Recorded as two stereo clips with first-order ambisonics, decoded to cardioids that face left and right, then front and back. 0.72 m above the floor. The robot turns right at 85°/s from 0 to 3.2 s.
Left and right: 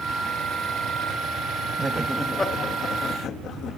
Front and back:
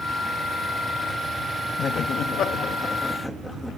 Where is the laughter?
35° right, 0.8 m; by 3.8 s 85° left, 0.8 m.